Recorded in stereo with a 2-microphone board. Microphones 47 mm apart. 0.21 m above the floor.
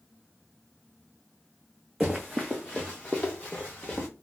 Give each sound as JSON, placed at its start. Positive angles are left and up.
{"t": 2.0, "sound": "running footsteps", "side_deg": -5, "distance_m": 0.8}